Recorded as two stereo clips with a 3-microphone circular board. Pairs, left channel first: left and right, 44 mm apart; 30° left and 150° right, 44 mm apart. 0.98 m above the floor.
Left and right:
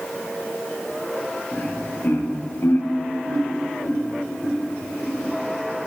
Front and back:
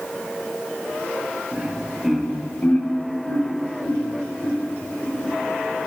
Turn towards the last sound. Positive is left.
turn(degrees=15)